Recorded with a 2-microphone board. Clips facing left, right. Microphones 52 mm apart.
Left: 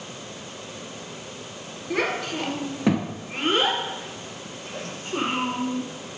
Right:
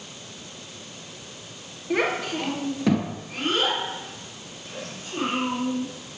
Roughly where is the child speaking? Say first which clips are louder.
Right 1 dB; centre.